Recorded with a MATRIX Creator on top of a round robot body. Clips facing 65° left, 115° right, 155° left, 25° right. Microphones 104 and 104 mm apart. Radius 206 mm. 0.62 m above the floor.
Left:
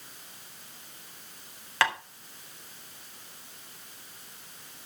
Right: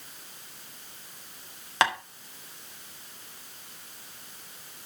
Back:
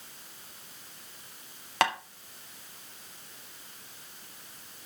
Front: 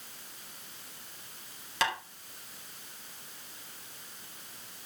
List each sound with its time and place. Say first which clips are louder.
1.8 s tapping: right 2 dB, back 4 dB; straight behind, 2 m